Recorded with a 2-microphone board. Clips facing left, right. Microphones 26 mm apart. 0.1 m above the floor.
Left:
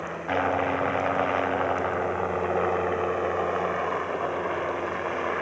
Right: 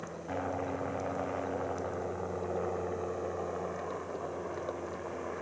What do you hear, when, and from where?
0.0 s a helicopter: 55° left (ahead or behind)